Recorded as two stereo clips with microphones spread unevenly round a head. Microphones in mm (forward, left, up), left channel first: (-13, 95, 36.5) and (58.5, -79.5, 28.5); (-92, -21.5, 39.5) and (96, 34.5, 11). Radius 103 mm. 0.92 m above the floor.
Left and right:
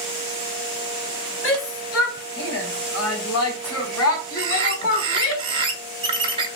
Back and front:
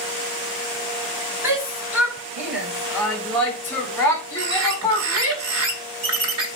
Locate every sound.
1.4 s a shout: 95° left, 5 m; by 5.4 s 140° left, 3 m
4.4 s a bird: straight ahead, 1.9 m